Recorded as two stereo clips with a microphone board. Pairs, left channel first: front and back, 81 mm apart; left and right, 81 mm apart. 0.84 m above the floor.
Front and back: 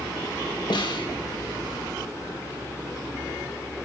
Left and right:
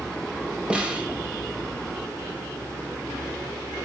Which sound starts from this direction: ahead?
A snare drum, at 0.7 s.